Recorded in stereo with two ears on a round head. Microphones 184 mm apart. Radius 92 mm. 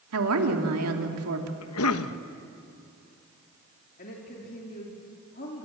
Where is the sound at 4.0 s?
45° left (ahead or behind), 2.5 m.